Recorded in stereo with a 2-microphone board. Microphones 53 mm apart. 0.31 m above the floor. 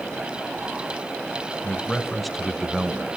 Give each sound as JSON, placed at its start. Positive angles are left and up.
{"t": 1.6, "sound": "a man speaking", "side_deg": 15, "distance_m": 1.2}